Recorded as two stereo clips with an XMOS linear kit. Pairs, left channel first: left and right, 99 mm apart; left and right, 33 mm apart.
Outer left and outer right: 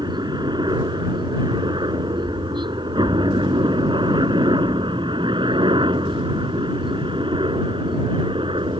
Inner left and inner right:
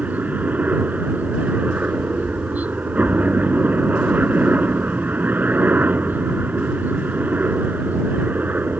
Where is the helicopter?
50° right (ahead or behind); by 8.8 s 60° right (ahead or behind).